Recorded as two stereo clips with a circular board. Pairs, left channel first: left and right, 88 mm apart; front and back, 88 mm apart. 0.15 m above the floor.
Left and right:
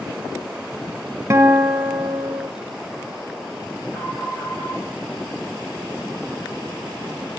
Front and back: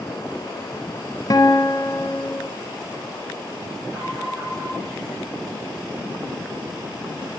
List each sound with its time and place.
1.3 s a guitar: 35° right, 0.8 m
3.9 s an alarm: 135° left, 5.5 m